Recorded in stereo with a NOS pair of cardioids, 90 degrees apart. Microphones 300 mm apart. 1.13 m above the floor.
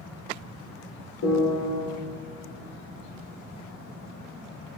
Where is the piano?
65° left, 4.5 m.